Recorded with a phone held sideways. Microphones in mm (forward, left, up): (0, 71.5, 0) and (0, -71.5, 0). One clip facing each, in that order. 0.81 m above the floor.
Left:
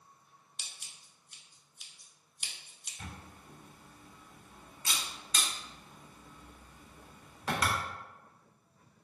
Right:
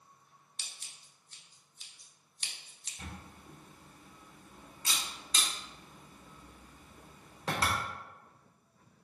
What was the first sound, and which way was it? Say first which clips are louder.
Scissors: even; 5° left (ahead or behind).